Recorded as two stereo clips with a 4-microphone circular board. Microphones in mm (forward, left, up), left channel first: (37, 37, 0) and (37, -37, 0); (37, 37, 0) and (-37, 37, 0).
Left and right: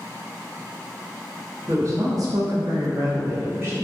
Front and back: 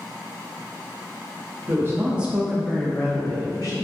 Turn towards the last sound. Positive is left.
turn(degrees=-30)